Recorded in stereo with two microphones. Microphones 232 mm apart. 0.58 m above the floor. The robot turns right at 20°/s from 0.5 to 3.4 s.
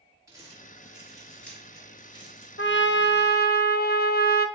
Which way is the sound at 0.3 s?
15° right (ahead or behind).